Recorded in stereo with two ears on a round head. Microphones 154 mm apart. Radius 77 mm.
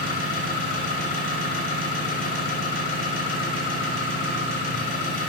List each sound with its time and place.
0.0 s an engine running: 50° left (ahead or behind), 2.5 m